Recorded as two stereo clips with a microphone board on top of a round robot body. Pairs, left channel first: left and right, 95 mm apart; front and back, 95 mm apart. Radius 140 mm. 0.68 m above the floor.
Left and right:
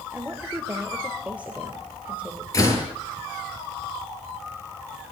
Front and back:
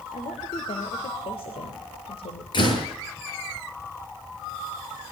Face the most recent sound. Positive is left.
turn(degrees=35)